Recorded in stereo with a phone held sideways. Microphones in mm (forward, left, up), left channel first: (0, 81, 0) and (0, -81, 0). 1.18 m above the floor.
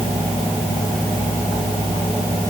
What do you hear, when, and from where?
Only background noise.